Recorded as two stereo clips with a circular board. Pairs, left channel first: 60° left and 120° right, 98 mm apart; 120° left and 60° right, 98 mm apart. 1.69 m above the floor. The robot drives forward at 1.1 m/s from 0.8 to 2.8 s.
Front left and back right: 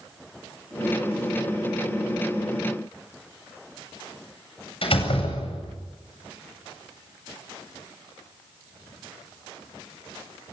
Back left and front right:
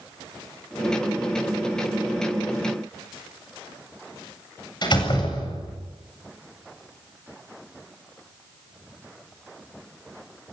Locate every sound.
4.8 s a door slam: 80° left, 8 m